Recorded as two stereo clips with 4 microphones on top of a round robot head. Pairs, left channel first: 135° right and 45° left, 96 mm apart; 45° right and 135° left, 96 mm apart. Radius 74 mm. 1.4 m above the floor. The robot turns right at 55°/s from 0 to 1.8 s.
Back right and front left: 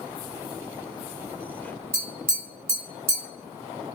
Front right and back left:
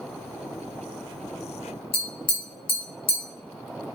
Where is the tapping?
15° right, 1.0 m.